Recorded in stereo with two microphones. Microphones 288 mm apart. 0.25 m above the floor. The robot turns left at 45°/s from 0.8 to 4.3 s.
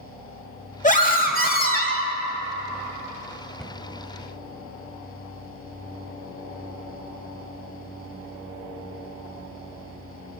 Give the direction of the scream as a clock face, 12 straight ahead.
8 o'clock.